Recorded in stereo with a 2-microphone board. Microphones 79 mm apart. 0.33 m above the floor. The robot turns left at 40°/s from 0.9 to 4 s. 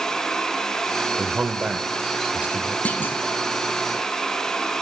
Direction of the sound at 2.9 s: 20° left (ahead or behind).